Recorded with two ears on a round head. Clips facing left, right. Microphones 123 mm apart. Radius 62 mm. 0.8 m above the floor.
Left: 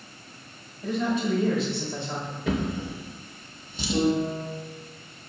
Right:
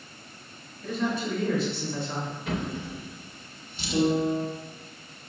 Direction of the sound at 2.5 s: 65° left (ahead or behind).